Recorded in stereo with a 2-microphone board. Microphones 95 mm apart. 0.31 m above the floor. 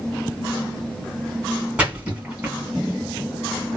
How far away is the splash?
About 1.7 m.